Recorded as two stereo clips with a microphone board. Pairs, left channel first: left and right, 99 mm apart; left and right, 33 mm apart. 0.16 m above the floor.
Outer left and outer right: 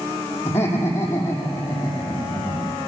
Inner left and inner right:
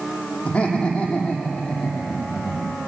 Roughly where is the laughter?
Left.